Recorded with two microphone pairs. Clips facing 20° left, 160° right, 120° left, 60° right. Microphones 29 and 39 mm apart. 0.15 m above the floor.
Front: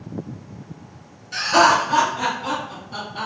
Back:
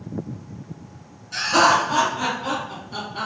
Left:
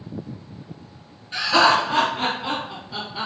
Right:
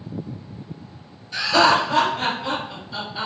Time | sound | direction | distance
1.3 | laughter | 100° left | 1.7 m